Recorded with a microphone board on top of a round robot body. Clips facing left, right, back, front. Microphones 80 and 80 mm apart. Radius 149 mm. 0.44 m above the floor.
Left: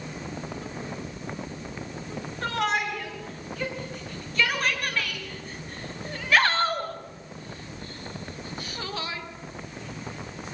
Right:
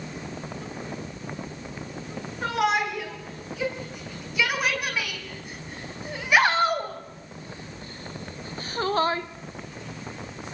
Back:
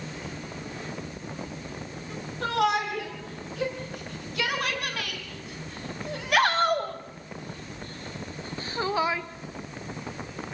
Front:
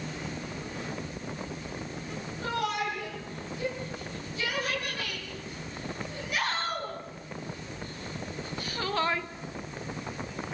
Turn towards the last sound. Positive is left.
turn(degrees=-85)